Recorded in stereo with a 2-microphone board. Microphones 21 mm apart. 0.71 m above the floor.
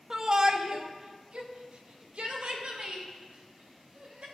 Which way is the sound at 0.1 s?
30° right (ahead or behind).